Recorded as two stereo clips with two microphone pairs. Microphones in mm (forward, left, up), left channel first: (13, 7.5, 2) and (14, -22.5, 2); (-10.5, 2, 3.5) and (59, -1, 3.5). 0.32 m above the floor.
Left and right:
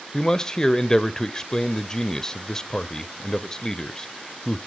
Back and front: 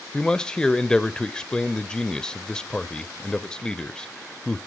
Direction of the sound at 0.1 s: 120° left.